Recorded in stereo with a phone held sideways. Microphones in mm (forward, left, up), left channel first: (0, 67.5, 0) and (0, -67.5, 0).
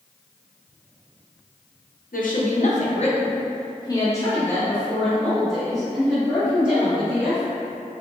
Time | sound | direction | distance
2.1 | a woman speaking | 85° left | 0.9 m